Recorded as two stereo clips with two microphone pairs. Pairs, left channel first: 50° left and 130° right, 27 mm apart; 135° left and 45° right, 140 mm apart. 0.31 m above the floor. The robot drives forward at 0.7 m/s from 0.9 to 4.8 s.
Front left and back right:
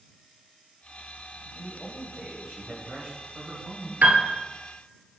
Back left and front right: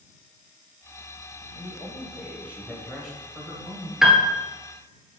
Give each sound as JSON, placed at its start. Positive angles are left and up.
{"t": 1.6, "sound": "a man speaking", "azimuth_deg": -65, "distance_m": 1.7}
{"t": 4.0, "sound": "a piano", "azimuth_deg": -130, "distance_m": 1.2}